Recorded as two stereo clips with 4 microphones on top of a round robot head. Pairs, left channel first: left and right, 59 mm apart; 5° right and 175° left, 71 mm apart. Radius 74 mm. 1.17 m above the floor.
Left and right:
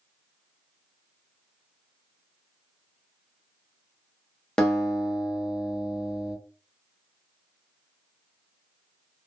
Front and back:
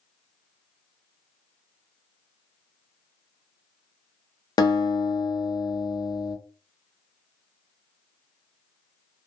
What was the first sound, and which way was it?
A guitar, 10° left.